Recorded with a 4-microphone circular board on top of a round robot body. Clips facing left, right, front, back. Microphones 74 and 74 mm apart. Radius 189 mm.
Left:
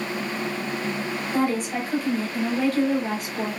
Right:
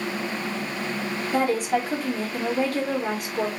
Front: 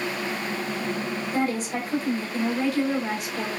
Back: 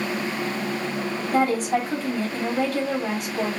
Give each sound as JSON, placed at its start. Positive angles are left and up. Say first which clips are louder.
{"t": 1.3, "sound": "a woman speaking", "louder": "right 2 dB, back 6 dB", "azimuth_deg": -130, "distance_m": 2.5}